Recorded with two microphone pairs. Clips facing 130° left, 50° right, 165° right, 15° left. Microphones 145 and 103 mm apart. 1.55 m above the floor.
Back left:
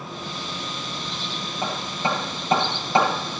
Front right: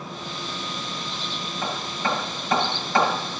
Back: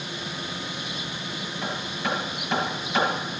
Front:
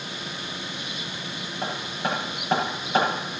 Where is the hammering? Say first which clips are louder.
Back left 2 dB, front 2 dB; 70° left, 7 m.